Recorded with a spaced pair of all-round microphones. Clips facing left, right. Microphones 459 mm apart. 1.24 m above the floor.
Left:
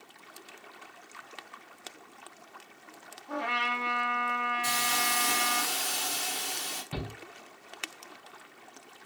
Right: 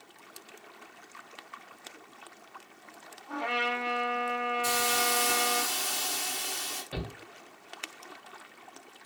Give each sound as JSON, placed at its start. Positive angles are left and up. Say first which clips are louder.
{"t": 3.3, "sound": "a trumpet", "louder": "right 2 dB", "side_deg": 35, "distance_m": 1.2}
{"t": 4.6, "sound": "a hiss", "louder": "right 5 dB", "side_deg": 75, "distance_m": 1.0}
{"t": 6.9, "sound": "a shout", "louder": "even", "side_deg": 20, "distance_m": 0.9}